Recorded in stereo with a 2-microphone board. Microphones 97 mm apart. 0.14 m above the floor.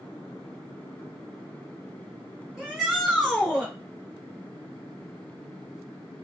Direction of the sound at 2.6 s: 5° right (ahead or behind).